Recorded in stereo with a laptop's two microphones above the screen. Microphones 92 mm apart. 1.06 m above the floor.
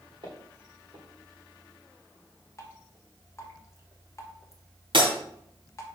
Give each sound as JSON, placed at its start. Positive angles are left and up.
{"t": 0.2, "sound": "footsteps", "side_deg": -60, "distance_m": 3.5}
{"t": 2.6, "sound": "dripping", "side_deg": 35, "distance_m": 1.1}
{"t": 4.9, "sound": "breaking glass", "side_deg": -65, "distance_m": 2.5}